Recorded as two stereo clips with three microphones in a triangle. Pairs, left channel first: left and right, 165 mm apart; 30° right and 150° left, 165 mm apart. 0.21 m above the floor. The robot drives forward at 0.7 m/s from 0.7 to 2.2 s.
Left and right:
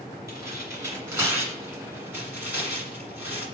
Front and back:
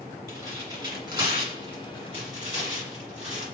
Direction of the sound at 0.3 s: 145° right.